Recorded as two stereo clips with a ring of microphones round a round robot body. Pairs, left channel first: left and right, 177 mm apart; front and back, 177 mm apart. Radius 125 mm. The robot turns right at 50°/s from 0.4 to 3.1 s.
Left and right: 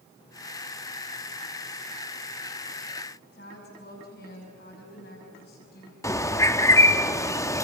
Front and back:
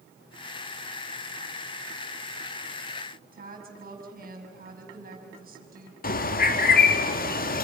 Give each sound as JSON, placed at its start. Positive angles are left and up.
{"t": 3.3, "sound": "a woman speaking", "azimuth_deg": 145, "distance_m": 5.5}
{"t": 6.0, "sound": "a bird", "azimuth_deg": 20, "distance_m": 1.5}